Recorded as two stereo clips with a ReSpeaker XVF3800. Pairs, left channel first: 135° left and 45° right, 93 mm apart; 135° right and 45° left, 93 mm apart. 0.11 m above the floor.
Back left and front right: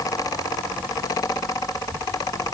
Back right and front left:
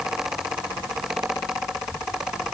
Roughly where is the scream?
No scream in this recording.